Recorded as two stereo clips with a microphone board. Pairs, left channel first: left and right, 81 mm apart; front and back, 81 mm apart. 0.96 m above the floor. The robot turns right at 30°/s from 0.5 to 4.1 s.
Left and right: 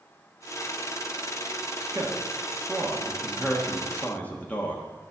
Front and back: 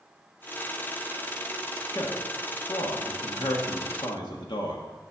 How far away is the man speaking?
About 1.3 m.